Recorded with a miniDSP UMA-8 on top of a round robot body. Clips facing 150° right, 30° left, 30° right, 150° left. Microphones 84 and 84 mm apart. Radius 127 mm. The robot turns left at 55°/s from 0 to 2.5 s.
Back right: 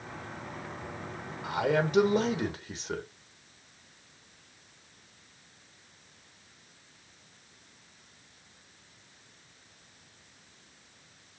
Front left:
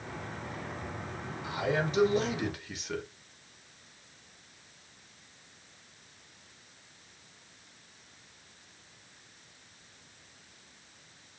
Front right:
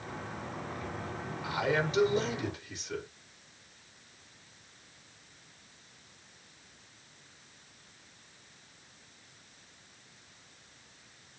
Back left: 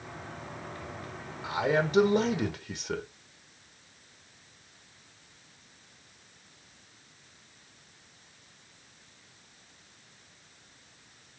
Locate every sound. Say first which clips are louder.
1.4 s a man speaking: back right 4 dB, back left 3 dB; 145° right, 1.3 m; by 3.0 s 160° left, 1.3 m